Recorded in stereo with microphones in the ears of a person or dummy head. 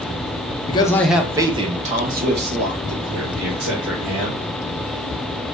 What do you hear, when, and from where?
0.7 s a man speaking: 20° left (ahead or behind), 0.5 m; by 4.4 s 65° right (ahead or behind), 2.0 m